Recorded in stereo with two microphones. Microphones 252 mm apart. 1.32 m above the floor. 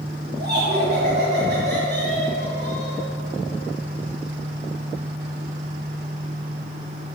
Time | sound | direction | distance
0.4 | laughter | 35° right (ahead or behind) | 2 m